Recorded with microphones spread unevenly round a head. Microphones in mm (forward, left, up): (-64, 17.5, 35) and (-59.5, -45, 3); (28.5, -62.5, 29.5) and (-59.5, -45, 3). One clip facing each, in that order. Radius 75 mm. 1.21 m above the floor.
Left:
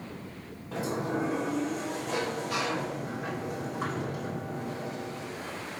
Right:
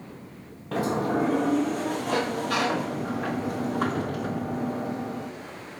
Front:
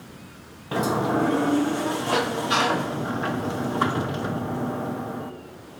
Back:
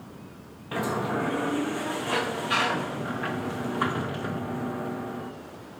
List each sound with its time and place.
0.7 s a sliding door: 15° right, 0.5 m